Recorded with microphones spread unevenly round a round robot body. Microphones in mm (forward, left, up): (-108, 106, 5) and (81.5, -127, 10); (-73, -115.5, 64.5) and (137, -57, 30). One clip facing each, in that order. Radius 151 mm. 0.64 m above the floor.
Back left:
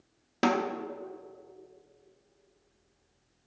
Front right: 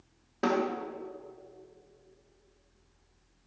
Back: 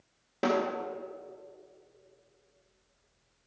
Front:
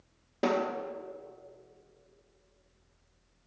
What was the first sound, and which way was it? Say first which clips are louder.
A snare drum: back left 1 dB, back 1 dB; 105° left.